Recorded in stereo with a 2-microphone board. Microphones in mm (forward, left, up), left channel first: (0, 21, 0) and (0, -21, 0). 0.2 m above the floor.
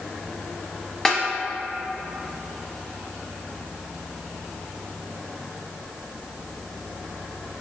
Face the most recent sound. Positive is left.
turn(degrees=10)  # may be behind; listen again after turning